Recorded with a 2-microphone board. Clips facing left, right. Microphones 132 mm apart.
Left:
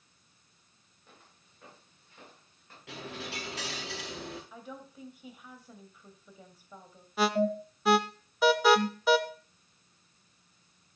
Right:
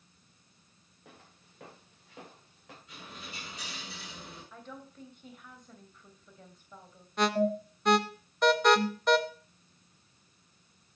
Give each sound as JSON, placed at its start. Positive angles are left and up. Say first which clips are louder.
{"t": 1.1, "sound": "footsteps", "louder": "right 4 dB", "side_deg": -80, "distance_m": 5.5}
{"t": 2.9, "sound": "a dropped coin", "louder": "left 8 dB", "side_deg": 75, "distance_m": 4.5}
{"t": 4.5, "sound": "a woman speaking", "louder": "left 2 dB", "side_deg": 10, "distance_m": 2.5}
{"t": 7.2, "sound": "an alarm", "louder": "even", "side_deg": 5, "distance_m": 0.9}